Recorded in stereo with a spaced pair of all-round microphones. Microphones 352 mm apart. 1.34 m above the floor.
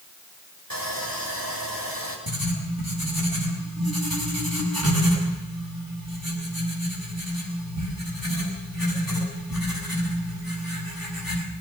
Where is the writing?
80° right, 7 m.